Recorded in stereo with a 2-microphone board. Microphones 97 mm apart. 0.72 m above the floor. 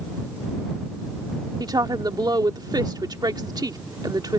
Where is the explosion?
No explosion in this recording.